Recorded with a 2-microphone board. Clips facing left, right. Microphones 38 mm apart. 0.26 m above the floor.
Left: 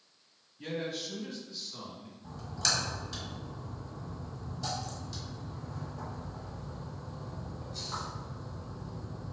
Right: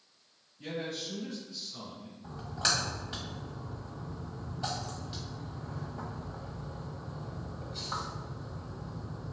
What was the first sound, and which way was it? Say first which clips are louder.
A man speaking: left 1 dB; 30° left (ahead or behind).